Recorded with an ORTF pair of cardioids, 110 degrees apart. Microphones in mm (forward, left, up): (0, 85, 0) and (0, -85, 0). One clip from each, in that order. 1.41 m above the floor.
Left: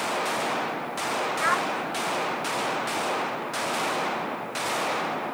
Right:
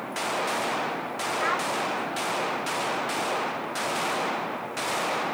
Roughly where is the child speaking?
Ahead.